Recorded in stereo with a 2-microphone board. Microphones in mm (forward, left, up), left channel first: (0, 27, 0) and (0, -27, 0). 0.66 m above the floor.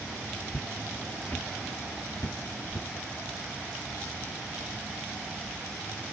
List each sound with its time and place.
0.5 s footsteps: 5° left (ahead or behind), 1.1 m; by 2.9 s 45° left (ahead or behind), 1.9 m